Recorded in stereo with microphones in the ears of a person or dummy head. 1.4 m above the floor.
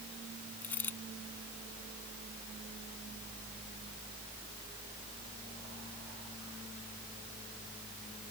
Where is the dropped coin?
10° left (ahead or behind).